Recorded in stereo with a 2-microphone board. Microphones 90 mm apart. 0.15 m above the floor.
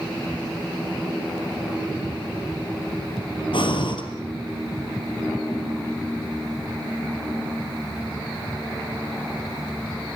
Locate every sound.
3.5 s breathing: 65° left (ahead or behind), 2.5 m